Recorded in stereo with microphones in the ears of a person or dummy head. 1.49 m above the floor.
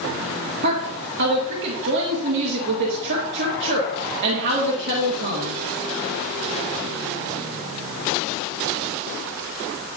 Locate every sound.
0.6 s a woman speaking: 55° right (ahead or behind), 2.0 m